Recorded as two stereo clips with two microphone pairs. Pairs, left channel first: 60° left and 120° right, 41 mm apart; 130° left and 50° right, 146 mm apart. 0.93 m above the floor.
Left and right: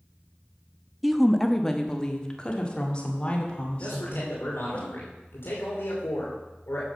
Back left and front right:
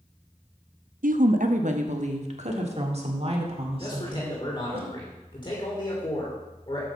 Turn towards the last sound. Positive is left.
turn(degrees=70)